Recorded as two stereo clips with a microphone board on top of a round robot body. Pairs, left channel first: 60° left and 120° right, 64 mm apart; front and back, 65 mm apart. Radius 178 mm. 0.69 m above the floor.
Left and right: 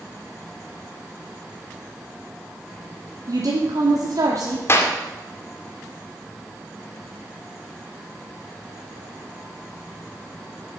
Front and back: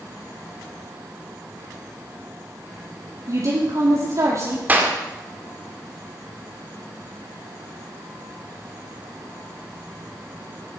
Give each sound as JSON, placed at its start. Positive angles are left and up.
{"t": 3.3, "sound": "a woman speaking", "azimuth_deg": -145, "distance_m": 2.5}
{"t": 4.7, "sound": "a clap", "azimuth_deg": 115, "distance_m": 2.0}